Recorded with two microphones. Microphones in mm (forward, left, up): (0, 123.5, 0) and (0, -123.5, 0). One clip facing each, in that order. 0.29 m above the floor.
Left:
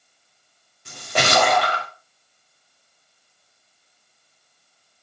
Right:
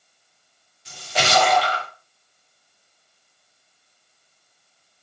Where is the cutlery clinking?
No cutlery clinking in this recording.